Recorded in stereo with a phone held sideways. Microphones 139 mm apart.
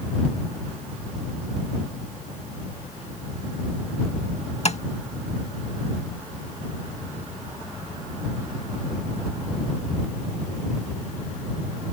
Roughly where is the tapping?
Left.